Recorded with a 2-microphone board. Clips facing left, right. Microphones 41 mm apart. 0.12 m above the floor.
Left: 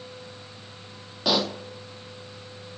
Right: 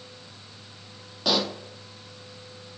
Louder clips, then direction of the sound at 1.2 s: Left 1 dB; 5° left (ahead or behind).